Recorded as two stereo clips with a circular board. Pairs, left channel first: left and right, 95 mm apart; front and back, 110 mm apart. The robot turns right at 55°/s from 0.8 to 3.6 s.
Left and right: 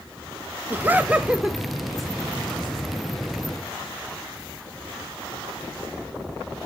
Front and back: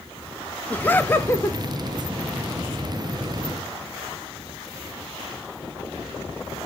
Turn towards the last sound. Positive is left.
turn(degrees=100)